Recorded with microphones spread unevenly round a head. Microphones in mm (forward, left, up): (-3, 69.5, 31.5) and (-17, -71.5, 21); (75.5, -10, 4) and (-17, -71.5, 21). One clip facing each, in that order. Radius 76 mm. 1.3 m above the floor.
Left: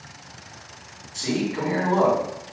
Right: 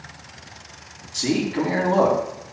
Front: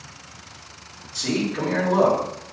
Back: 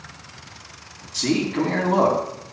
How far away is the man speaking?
About 3.5 m.